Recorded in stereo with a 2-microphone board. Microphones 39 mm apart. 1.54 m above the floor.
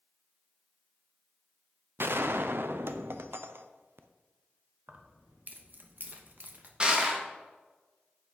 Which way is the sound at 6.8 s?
25° right (ahead or behind).